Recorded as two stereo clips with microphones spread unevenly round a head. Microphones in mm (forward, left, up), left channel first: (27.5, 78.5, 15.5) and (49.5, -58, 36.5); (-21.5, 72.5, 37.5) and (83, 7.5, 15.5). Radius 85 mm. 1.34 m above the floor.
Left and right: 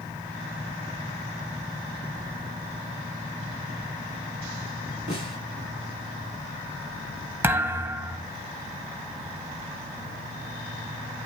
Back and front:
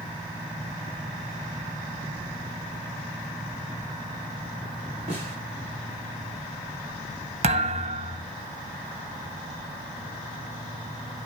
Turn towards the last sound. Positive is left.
turn(degrees=-20)